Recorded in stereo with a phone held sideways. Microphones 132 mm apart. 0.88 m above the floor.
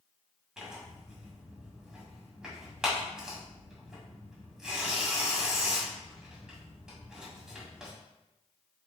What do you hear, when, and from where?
0.6 s tearing paper: 5° right (ahead or behind), 1.9 m